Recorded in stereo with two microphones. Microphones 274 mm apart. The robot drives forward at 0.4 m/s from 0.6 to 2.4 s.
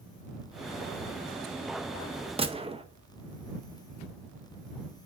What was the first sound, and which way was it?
A gunshot, 20° right (ahead or behind).